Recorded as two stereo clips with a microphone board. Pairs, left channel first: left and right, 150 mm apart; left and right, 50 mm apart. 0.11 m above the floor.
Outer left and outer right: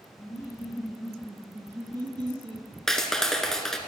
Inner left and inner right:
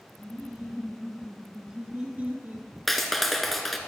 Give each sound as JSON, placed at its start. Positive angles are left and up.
{"t": 0.2, "sound": "laughter", "side_deg": 20, "distance_m": 2.0}
{"t": 2.9, "sound": "a clap", "side_deg": 5, "distance_m": 1.0}